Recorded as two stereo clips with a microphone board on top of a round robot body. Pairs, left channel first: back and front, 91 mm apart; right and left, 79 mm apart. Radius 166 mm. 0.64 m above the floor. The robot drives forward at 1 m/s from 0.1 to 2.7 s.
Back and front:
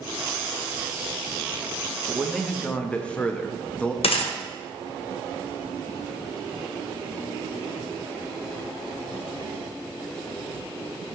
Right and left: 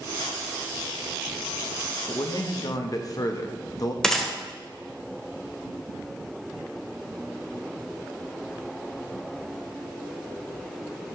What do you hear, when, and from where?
2.1 s a man speaking: 75° right, 1.5 m; by 3.9 s 105° right, 1.5 m
4.0 s a gunshot: 175° right, 1.8 m